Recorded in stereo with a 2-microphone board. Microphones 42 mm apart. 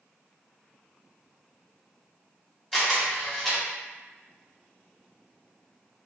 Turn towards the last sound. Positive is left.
turn(degrees=5)  # may be behind; listen again after turning